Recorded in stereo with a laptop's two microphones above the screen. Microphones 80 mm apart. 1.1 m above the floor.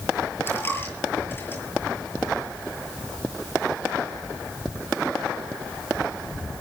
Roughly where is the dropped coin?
Left.